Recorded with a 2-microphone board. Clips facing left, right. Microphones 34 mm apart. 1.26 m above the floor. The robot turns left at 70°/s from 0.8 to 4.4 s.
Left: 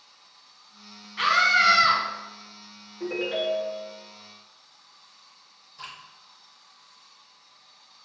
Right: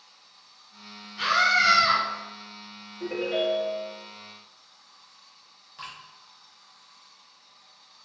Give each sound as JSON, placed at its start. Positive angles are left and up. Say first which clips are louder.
{"t": 1.2, "sound": "a scream", "louder": "left 2 dB", "azimuth_deg": 75, "distance_m": 0.9}
{"t": 3.0, "sound": "a ringtone", "louder": "right 1 dB", "azimuth_deg": 60, "distance_m": 1.1}
{"t": 5.8, "sound": "dripping", "louder": "even", "side_deg": -50, "distance_m": 1.2}